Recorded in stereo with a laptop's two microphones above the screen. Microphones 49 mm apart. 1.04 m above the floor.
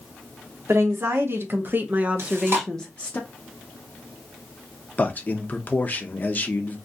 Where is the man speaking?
35° left (ahead or behind), 0.6 m.